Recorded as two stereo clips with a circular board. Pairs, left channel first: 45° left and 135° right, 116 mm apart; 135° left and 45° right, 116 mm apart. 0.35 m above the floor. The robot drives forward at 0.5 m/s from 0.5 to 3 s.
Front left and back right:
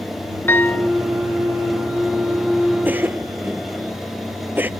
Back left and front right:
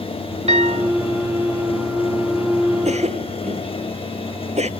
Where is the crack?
I don't hear a crack.